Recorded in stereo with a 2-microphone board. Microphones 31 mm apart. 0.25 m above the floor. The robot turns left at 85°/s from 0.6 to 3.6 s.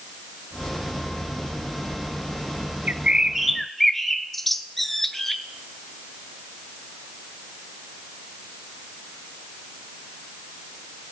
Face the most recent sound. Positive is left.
turn(degrees=10)  # may be behind; listen again after turning